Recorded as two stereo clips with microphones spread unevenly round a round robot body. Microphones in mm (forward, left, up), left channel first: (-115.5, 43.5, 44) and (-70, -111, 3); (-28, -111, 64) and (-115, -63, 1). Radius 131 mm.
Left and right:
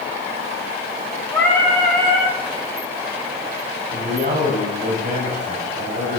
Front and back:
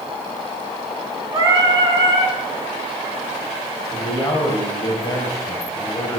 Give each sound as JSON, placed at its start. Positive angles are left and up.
{"t": 1.3, "sound": "singing", "azimuth_deg": -170, "distance_m": 3.5}
{"t": 3.9, "sound": "a man speaking", "azimuth_deg": -95, "distance_m": 3.0}